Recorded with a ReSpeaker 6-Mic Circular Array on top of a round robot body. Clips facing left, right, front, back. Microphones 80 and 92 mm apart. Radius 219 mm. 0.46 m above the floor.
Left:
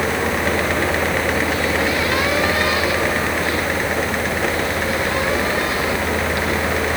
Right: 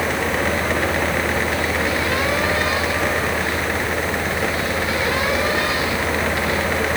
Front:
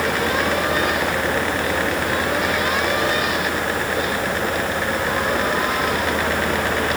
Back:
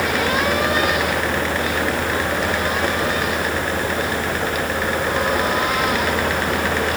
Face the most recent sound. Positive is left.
No sound to turn to.